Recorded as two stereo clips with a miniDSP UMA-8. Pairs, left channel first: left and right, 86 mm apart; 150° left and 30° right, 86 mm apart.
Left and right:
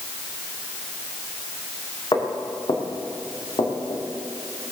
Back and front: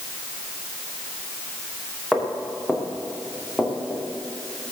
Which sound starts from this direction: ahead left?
Footsteps, at 2.1 s.